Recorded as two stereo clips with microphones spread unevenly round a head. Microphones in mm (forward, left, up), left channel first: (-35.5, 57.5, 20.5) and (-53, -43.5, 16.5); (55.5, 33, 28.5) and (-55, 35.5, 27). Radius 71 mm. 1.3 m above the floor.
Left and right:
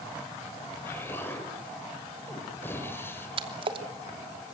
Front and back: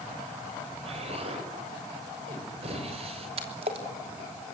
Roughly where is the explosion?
Behind left.